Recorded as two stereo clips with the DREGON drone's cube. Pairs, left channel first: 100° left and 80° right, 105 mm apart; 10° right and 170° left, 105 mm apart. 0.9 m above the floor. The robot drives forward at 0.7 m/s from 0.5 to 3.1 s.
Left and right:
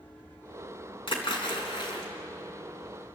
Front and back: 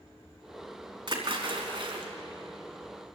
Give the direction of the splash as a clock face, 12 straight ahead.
8 o'clock.